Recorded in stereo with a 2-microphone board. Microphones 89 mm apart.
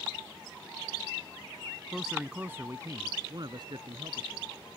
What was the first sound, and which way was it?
A man speaking, centre (ahead or behind).